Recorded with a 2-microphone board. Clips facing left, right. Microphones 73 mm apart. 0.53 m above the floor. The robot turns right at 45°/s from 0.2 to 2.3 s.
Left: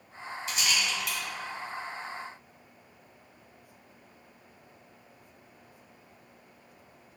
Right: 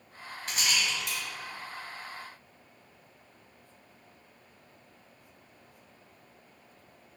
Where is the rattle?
55° right (ahead or behind), 2 m; by 1.2 s 20° right (ahead or behind), 2 m.